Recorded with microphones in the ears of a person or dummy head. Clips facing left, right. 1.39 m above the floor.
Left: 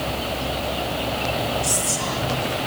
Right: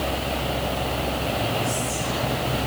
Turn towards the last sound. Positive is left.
turn(degrees=85)